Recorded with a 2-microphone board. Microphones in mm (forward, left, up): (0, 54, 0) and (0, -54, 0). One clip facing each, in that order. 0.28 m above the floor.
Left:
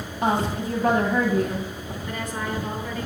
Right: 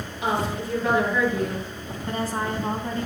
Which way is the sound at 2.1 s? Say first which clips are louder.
Right 4 dB; 35° right (ahead or behind).